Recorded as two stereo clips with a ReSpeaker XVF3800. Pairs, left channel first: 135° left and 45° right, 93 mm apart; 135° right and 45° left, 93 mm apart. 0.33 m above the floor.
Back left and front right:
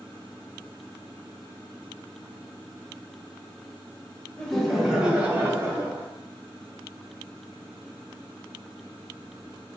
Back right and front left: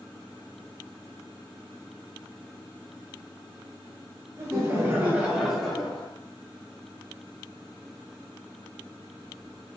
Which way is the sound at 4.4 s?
60° left.